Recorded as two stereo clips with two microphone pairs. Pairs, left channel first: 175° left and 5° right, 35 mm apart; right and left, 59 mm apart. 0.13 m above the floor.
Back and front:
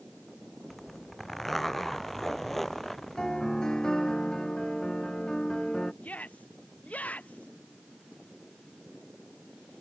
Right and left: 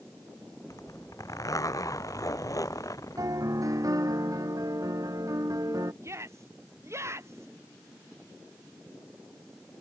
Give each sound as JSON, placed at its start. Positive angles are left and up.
{"t": 0.7, "sound": "a zipper", "azimuth_deg": -105}
{"t": 3.2, "sound": "a piano", "azimuth_deg": 100}
{"t": 6.0, "sound": "a shout", "azimuth_deg": 130}